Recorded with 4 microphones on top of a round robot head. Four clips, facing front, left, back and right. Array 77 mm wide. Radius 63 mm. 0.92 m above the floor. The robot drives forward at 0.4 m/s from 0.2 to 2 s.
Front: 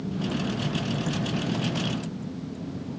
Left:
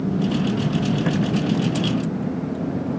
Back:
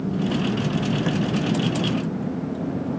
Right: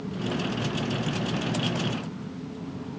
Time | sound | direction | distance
0.0 | a vehicle | 115° left | ?